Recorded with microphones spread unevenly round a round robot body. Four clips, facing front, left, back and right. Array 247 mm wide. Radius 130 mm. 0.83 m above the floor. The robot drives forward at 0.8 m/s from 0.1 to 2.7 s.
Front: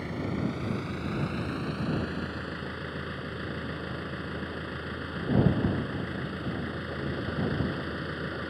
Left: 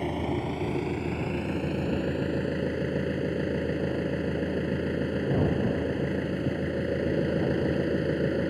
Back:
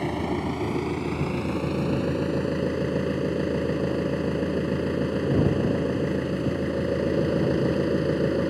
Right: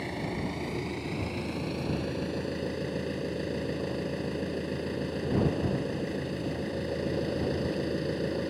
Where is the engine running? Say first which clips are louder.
Left 4 dB, back 5 dB; 160° left; by 8.5 s 165° left.